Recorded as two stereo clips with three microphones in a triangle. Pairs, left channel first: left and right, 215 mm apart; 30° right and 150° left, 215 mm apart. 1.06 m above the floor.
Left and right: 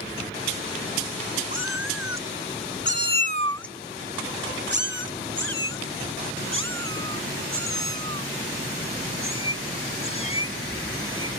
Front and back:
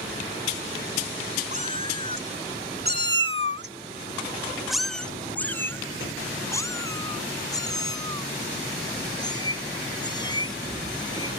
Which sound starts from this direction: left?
A cat meowing, at 1.5 s.